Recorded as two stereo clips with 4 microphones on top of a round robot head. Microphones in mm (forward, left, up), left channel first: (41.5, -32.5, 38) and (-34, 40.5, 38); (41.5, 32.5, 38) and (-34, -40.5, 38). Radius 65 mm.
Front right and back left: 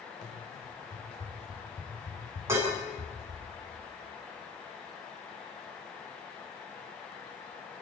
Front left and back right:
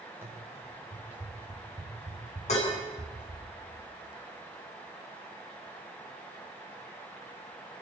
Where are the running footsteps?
65° right, 9 m; by 3.4 s 55° right, 8 m.